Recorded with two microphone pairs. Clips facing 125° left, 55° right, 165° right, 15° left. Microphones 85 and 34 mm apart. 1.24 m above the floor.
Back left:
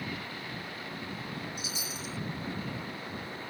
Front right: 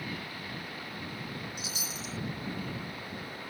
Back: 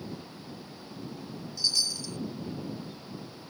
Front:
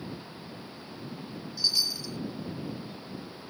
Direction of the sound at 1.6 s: 55° right.